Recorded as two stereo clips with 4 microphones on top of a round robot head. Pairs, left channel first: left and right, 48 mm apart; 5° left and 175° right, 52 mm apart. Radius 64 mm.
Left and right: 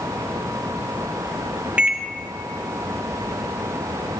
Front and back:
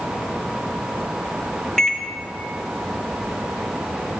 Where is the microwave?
60° right, 0.6 m.